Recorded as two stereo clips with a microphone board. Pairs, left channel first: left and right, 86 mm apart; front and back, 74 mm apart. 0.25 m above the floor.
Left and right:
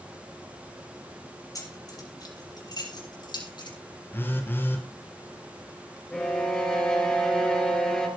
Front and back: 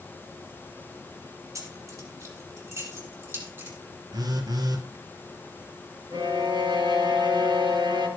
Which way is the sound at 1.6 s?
135° left.